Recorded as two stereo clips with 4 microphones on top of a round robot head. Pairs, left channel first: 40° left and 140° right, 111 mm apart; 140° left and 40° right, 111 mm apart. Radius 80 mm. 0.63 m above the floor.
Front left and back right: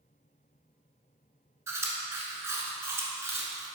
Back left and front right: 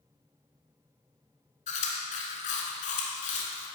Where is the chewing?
155° left, 1.3 m.